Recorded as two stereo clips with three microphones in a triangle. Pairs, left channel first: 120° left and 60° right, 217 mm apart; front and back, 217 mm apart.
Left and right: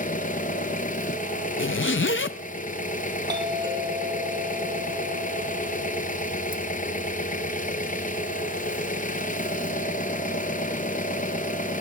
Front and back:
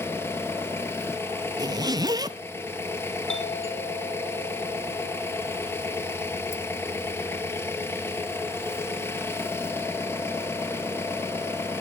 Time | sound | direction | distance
0.0 | an engine running | 75° left | 1.1 m
1.6 | a zipper | 110° left | 0.6 m
3.3 | a doorbell | 10° left | 4.5 m